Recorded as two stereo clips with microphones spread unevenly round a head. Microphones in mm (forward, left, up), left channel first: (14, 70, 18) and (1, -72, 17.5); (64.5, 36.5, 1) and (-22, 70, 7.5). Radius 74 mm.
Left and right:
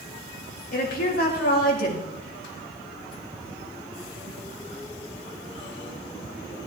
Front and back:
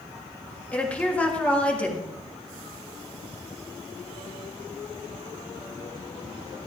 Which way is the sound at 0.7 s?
55° left.